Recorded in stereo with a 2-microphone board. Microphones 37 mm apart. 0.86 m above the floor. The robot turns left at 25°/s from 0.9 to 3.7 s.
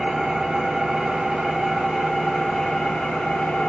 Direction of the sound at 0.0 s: 160° right.